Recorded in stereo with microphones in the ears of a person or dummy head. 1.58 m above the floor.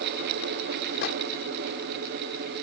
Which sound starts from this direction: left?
A microwave, at 1.0 s.